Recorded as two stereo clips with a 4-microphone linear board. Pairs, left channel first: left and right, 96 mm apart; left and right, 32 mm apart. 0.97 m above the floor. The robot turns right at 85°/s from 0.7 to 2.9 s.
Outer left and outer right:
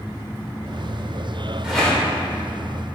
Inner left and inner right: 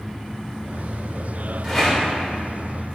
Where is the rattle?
10° right (ahead or behind), 4 m; by 3.0 s 75° left (ahead or behind), 4 m.